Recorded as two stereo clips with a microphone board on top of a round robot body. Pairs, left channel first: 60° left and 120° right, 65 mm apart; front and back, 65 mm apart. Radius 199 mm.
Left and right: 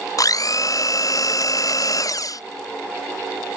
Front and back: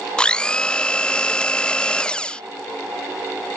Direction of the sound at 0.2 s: 75° left.